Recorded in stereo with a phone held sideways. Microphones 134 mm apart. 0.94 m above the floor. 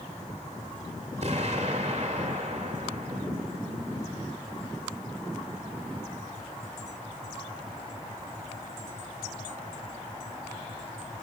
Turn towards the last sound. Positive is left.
turn(degrees=-50)  # may be behind; listen again after turning